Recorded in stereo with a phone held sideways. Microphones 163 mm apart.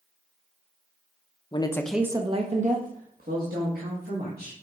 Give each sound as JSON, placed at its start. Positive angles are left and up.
{"t": 1.5, "sound": "a woman speaking", "side_deg": 30, "distance_m": 0.8}